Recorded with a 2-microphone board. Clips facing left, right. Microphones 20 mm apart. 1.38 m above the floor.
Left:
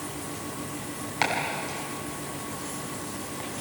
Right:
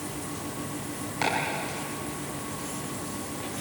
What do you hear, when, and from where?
1.2 s chopping: 30° left (ahead or behind), 6 m